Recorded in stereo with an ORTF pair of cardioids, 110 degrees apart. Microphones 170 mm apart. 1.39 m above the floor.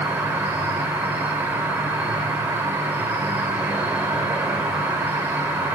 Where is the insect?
10° right, 1.2 m.